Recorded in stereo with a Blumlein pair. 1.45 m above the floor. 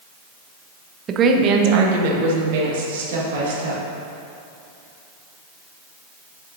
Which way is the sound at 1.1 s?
25° right.